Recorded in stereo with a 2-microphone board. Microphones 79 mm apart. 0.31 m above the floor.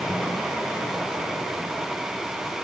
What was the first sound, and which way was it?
Only background noise.